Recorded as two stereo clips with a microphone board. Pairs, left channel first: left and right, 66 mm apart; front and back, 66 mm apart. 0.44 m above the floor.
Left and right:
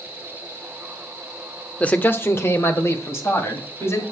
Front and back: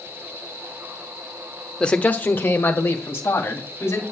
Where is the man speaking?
55° left, 0.7 m; by 4.0 s 50° left, 3 m.